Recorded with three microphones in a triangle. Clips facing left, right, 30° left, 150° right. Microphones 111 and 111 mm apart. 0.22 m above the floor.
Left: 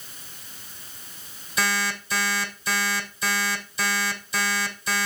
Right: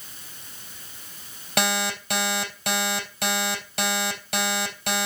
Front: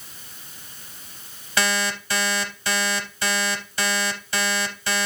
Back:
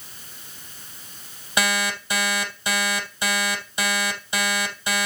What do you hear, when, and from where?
1.6 s an alarm clock: 80° right, 3.5 m